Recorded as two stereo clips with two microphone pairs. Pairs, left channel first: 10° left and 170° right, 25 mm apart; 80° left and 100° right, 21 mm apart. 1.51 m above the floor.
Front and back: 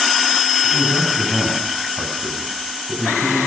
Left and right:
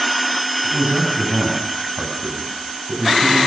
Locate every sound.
0.6 s a man speaking: 95° right, 9 m